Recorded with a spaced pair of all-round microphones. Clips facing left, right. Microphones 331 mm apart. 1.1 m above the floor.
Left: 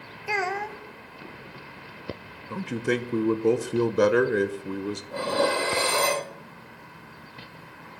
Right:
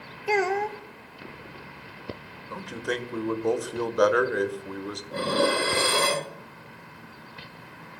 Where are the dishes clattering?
20° right (ahead or behind), 1.1 m.